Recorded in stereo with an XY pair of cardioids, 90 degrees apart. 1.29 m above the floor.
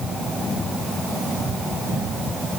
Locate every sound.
Only background noise.